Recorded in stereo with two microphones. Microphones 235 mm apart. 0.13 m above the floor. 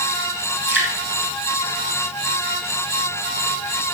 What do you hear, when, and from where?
0.7 s dripping: 45° left (ahead or behind), 3.5 m